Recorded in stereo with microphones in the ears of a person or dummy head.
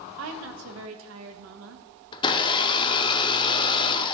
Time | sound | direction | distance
0.2 | a woman speaking | 70° right (ahead or behind) | 1.0 m
2.1 | a blender | 15° left (ahead or behind) | 0.5 m